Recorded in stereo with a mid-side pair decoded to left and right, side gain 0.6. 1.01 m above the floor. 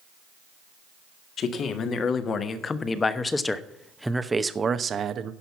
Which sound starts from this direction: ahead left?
A man speaking, at 1.4 s.